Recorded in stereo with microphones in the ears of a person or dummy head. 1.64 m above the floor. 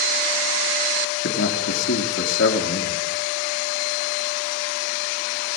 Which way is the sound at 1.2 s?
90° left.